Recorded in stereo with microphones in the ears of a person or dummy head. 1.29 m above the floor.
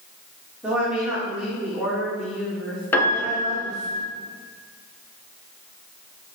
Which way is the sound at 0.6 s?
5° right (ahead or behind).